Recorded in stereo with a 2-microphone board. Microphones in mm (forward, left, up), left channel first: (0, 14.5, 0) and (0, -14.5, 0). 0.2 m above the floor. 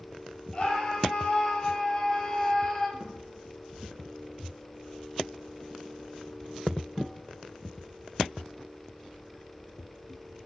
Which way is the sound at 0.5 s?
30° left (ahead or behind).